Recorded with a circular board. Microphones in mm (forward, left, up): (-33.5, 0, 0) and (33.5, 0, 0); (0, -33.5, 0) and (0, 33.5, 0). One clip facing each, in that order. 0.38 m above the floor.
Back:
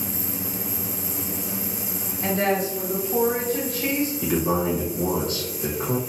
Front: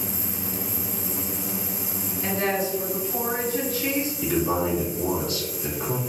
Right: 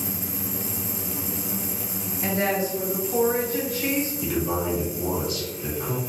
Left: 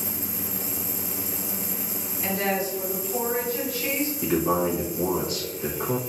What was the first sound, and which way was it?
A woman speaking, 145° right.